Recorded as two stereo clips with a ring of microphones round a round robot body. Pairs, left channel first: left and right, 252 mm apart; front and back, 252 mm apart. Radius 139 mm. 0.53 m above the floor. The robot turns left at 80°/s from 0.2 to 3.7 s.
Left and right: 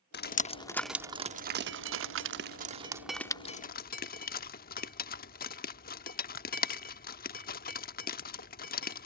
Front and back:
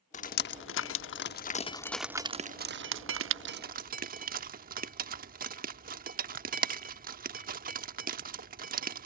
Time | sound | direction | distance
0.1 | dripping | 55° left | ?